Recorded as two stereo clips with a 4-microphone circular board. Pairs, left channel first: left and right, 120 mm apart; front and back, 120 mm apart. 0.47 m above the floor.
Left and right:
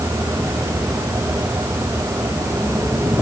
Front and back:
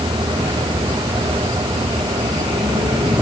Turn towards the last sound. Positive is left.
No sound to turn to.